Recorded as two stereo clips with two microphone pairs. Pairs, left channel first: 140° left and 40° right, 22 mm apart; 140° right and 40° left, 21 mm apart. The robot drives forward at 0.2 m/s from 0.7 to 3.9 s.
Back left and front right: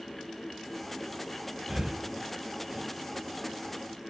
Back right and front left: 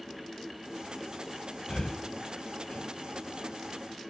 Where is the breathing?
95° right, 0.6 m; by 2.9 s 115° right, 0.7 m.